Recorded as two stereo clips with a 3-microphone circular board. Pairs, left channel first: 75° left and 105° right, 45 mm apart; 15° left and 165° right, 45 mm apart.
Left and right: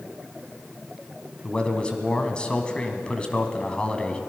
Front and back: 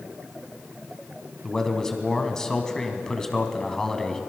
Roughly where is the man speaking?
Left.